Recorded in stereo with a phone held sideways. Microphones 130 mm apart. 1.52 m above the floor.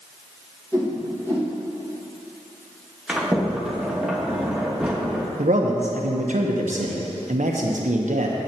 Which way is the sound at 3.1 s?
5° right (ahead or behind).